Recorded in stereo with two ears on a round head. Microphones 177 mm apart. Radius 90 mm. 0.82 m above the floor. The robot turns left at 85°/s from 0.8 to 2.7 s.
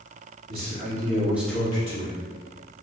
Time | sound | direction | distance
0.5 | a man speaking | 125° right | 1.7 m